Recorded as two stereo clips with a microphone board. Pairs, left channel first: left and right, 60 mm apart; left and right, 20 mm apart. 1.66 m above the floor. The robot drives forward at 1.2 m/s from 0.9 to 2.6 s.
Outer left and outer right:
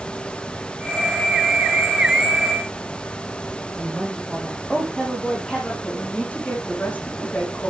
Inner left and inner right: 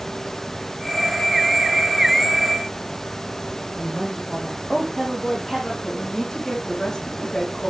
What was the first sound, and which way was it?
A woman speaking, 5° left (ahead or behind).